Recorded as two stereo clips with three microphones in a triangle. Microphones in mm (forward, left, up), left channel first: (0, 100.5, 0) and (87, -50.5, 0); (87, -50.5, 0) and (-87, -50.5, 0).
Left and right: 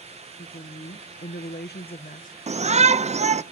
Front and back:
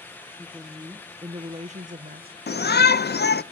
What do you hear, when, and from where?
0.4 s a woman speaking: 85° left, 0.8 m; by 2.4 s 160° left, 0.8 m
2.5 s a shout: 10° right, 0.6 m